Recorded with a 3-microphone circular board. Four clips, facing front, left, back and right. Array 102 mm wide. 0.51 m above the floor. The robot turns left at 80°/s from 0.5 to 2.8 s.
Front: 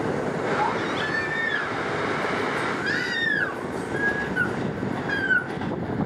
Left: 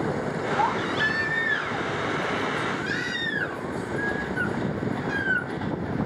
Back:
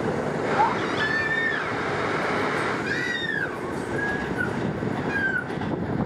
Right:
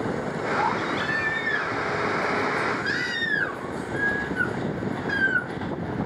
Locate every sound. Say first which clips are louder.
0.6 s a baby crying: left 1 dB, back 2 dB; 150° left, 5 m; by 5.5 s 30° right, 5 m